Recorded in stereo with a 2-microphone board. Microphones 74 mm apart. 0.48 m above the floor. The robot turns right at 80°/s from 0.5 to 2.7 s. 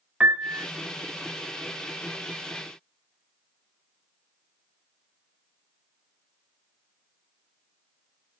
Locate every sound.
0.2 s a piano: 15° right (ahead or behind), 1.1 m; by 0.7 s 10° right (ahead or behind), 1.1 m